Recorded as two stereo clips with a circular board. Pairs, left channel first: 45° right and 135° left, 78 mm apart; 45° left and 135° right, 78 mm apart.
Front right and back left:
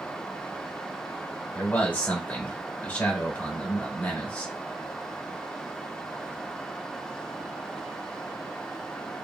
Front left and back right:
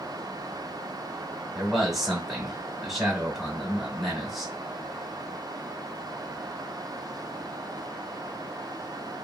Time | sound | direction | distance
1.6 | a man speaking | 50° right | 1.3 m